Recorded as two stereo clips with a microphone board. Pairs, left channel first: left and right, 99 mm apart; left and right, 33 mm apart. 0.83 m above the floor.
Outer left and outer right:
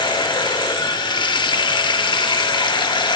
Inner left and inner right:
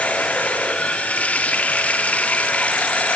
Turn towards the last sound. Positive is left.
turn(degrees=55)  # may be behind; listen again after turning